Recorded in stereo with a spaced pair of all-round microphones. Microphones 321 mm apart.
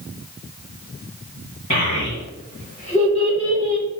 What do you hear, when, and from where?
1.7 s a child speaking: 40° left (ahead or behind), 1.2 m; by 3.9 s 10° left (ahead or behind), 1.6 m